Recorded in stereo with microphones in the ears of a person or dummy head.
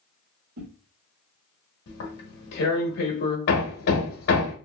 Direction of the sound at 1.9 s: 55° left (ahead or behind).